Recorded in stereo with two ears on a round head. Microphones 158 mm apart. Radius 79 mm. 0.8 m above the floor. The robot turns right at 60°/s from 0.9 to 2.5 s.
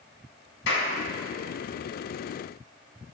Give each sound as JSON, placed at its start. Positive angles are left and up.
{"t": 0.7, "sound": "a clap", "side_deg": 80, "distance_m": 4.5}